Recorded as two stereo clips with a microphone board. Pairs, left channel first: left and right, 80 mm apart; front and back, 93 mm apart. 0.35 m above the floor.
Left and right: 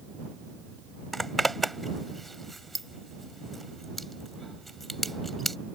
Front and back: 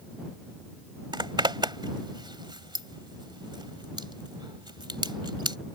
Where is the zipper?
175° left.